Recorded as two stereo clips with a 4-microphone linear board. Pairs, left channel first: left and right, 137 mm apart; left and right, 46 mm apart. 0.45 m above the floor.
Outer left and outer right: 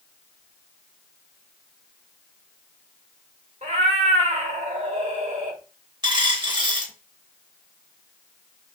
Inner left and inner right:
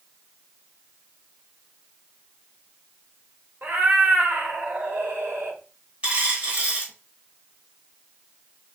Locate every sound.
3.6 s a cat meowing: 60° right (ahead or behind), 0.8 m
6.0 s a dropped coin: 30° right (ahead or behind), 1.1 m